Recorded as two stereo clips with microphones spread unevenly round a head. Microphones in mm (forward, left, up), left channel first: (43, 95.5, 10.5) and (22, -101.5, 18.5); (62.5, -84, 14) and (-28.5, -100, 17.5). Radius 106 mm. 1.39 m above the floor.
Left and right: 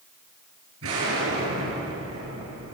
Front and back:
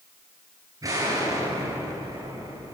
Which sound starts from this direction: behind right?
An explosion, at 0.8 s.